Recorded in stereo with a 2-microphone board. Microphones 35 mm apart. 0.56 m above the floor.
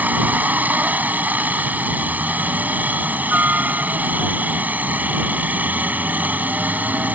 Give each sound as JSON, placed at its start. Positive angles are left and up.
{"t": 0.0, "sound": "a helicopter", "side_deg": -55}